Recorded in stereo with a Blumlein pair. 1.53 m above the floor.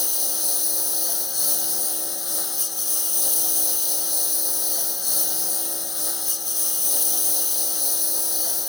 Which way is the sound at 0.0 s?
10° left.